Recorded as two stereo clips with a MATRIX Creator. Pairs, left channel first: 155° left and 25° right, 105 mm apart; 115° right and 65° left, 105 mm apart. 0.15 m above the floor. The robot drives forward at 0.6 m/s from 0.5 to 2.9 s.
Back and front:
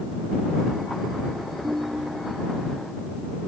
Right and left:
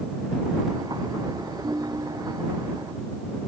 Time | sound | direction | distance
1.6 | a ringtone | 35° left | 3 m